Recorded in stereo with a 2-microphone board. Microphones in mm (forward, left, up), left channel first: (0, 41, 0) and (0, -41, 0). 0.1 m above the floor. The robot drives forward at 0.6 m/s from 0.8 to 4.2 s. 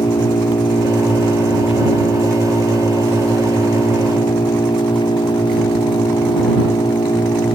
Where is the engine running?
85° left; by 7.5 s 90° left.